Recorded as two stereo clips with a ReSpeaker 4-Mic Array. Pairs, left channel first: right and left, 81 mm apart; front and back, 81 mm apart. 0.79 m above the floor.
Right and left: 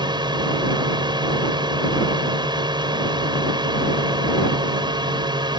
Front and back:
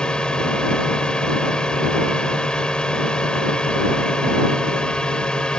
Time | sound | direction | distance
0.0 | a drone | 80° left | ?